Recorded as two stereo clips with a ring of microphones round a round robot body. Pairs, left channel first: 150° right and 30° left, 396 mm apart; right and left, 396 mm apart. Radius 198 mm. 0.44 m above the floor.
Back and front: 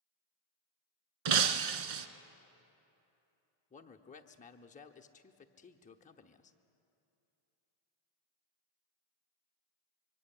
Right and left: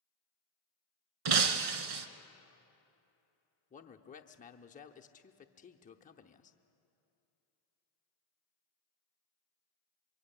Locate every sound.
1.2 s breaking glass: 55° left, 1.1 m
3.7 s a man speaking: 115° right, 0.8 m